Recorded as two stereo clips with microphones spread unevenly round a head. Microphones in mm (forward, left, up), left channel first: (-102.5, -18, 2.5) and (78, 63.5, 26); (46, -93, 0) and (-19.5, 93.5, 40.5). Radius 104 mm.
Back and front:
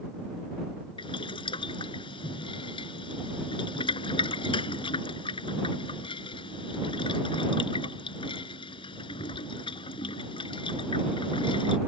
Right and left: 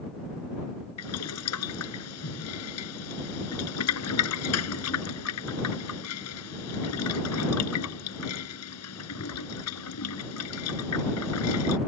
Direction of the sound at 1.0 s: 85° right.